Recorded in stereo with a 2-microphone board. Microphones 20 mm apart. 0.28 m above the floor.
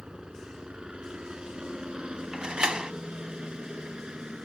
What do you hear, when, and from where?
0.0 s a helicopter: 50° right (ahead or behind); by 4.5 s 55° right (ahead or behind)
2.3 s a door slam: 45° right (ahead or behind)